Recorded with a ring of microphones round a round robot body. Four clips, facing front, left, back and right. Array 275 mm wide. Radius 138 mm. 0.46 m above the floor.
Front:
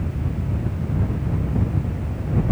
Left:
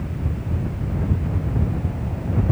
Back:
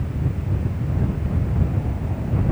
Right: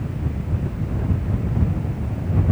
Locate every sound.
Only background noise.